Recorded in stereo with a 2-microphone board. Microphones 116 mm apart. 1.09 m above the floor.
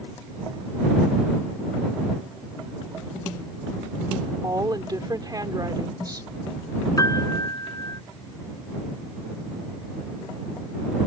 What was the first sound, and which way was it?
A woman speaking, 35° right (ahead or behind).